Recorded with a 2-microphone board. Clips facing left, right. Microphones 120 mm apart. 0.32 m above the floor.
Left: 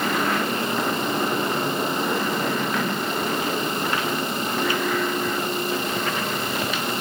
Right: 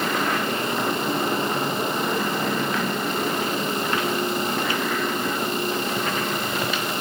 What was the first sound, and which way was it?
Only background noise.